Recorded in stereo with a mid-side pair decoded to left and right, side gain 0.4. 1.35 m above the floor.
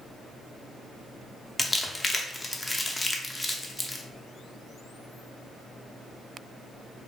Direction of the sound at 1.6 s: 20° left.